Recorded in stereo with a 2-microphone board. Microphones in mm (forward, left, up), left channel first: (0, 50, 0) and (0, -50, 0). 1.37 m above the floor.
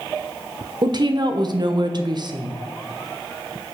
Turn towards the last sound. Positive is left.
turn(degrees=-45)  # may be behind; listen again after turning